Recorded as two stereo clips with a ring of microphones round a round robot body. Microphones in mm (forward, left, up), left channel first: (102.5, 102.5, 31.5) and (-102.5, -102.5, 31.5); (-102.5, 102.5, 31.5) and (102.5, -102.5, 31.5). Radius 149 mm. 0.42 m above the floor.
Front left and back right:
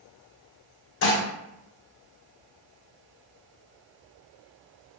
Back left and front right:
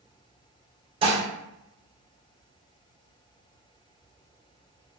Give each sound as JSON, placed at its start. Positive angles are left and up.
{"t": 1.0, "sound": "dishes clattering", "azimuth_deg": 20, "distance_m": 0.6}